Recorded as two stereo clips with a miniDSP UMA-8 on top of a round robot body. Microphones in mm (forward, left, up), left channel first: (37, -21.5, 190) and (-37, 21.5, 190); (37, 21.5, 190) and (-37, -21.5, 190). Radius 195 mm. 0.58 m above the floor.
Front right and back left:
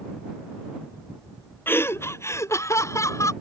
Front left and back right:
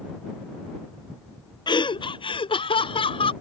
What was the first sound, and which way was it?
Laughter, 30° left.